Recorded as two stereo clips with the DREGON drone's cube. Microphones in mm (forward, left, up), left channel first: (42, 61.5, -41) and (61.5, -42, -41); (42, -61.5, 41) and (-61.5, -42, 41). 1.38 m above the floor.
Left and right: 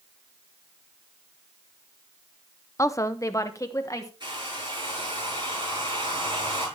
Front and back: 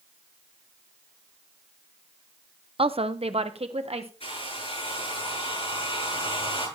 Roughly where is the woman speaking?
Behind left.